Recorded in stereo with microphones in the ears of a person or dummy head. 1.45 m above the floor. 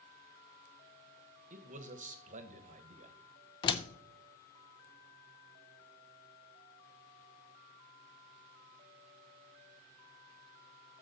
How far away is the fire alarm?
No fire alarm in this recording.